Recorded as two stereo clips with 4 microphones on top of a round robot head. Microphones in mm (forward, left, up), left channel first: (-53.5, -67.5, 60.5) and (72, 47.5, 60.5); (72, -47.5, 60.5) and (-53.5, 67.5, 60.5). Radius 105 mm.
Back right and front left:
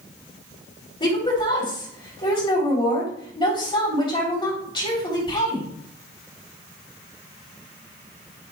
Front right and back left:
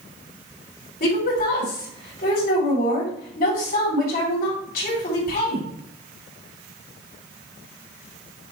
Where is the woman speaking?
75° right, 3 m.